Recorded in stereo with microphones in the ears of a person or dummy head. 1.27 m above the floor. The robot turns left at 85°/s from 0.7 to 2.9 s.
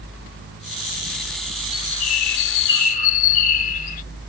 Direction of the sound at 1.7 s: 150° left.